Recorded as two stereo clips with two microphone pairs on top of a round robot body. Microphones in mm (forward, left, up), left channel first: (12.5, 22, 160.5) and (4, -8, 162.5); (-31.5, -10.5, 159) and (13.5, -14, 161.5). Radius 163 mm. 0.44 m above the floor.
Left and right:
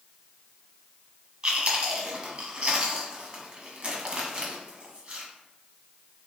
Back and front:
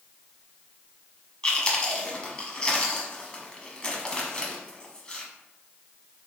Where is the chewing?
140° right, 1.3 m.